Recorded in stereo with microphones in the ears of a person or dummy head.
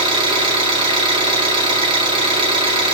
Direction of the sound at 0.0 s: 30° right (ahead or behind).